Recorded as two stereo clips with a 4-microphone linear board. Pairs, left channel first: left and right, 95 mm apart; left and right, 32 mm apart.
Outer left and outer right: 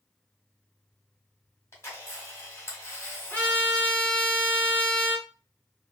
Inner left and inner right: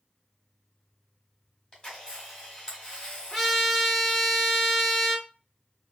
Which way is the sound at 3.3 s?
15° left (ahead or behind).